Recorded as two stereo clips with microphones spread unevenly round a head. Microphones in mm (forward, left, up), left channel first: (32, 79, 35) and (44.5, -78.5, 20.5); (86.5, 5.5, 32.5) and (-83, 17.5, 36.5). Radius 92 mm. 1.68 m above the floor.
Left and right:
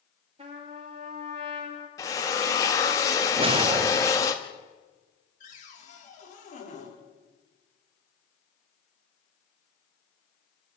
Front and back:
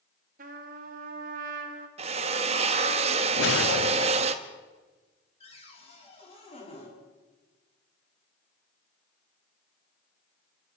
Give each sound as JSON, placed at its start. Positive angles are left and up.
{"t": 0.4, "sound": "a trumpet", "azimuth_deg": -150, "distance_m": 2.5}
{"t": 2.0, "sound": "a drill", "azimuth_deg": 150, "distance_m": 1.2}
{"t": 3.4, "sound": "a whoosh", "azimuth_deg": -30, "distance_m": 0.6}
{"t": 5.4, "sound": "a cupboard door", "azimuth_deg": 55, "distance_m": 6.0}